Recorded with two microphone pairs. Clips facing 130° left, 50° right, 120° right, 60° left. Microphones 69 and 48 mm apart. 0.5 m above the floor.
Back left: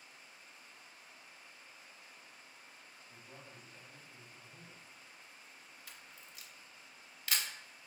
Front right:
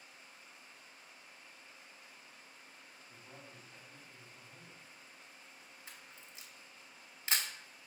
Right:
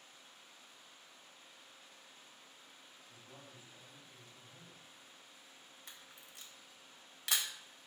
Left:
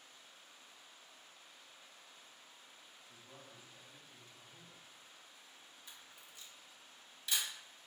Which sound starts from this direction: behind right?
A camera shutter, at 5.9 s.